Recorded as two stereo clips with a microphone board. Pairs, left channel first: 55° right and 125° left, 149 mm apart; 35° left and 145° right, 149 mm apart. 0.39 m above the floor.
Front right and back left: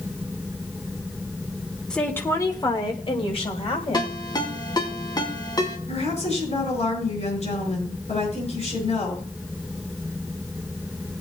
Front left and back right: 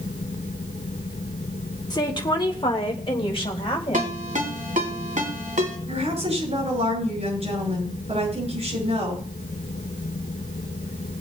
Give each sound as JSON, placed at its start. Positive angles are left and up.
{"t": 1.9, "sound": "a woman speaking", "azimuth_deg": 25, "distance_m": 1.2}
{"t": 3.9, "sound": "a ringtone", "azimuth_deg": -120, "distance_m": 3.0}
{"t": 5.9, "sound": "a woman speaking", "azimuth_deg": -100, "distance_m": 7.0}